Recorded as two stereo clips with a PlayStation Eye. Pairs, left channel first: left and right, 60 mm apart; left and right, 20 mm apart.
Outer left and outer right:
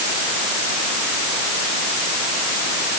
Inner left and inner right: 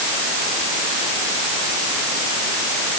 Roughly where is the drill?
No drill in this recording.